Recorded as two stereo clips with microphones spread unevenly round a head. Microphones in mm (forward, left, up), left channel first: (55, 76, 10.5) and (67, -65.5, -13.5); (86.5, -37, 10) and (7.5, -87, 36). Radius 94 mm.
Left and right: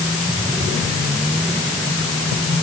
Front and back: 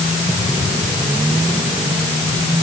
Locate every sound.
Only background noise.